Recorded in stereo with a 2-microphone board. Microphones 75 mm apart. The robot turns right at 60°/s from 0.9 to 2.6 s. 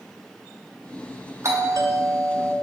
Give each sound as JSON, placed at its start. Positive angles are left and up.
{"t": 1.4, "sound": "a doorbell", "azimuth_deg": -125, "distance_m": 0.6}